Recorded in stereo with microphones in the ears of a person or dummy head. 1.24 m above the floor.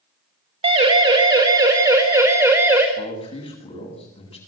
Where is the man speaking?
30° left (ahead or behind), 9.5 m.